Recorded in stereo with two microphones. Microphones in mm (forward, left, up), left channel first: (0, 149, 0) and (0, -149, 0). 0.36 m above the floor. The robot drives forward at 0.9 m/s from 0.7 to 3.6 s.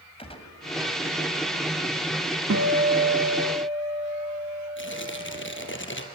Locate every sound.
0.2 s a gunshot: 20° left (ahead or behind), 2.5 m
2.5 s a guitar: 55° right (ahead or behind), 1.2 m; by 5.8 s 30° right (ahead or behind), 1.9 m
4.8 s tearing paper: 40° left (ahead or behind), 2 m